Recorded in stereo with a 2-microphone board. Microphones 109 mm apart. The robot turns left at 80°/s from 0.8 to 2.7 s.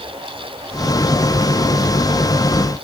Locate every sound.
Only background noise.